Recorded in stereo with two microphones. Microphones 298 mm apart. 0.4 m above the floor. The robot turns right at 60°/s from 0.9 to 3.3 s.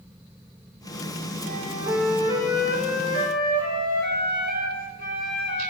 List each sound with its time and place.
1.4 s a flute: 35° right, 3.5 m; by 5.7 s 75° left, 3.5 m